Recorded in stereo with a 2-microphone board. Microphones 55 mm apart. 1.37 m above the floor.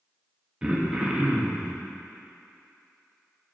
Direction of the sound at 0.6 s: 15° right (ahead or behind).